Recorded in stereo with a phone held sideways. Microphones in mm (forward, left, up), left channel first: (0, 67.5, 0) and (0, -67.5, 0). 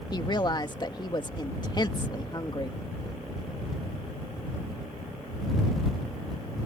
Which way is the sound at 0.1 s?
35° left (ahead or behind).